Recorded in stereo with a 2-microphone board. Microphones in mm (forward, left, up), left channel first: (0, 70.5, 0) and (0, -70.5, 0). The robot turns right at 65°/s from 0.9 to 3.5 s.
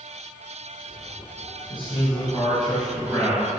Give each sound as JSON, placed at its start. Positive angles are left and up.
{"t": 1.7, "sound": "a man speaking", "azimuth_deg": 120, "distance_m": 1.6}